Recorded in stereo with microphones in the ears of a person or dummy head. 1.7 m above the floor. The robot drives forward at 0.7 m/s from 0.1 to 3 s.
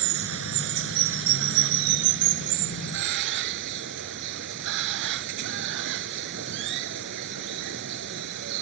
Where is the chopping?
No chopping in this recording.